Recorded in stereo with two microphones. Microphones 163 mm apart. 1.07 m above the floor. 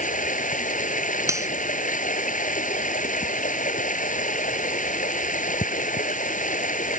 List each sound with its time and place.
0.0 s running water: 55° left (ahead or behind)
1.3 s cutlery clinking: 20° right (ahead or behind)